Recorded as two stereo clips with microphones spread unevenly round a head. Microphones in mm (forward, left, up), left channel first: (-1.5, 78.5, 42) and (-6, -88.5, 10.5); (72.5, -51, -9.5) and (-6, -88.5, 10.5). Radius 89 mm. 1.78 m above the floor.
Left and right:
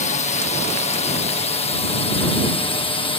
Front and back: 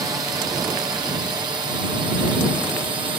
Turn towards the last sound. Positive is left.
turn(degrees=150)